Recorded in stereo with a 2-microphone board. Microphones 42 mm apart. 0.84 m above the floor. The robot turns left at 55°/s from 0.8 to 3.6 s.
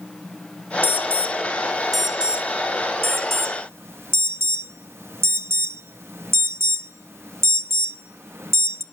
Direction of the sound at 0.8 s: 50° left (ahead or behind).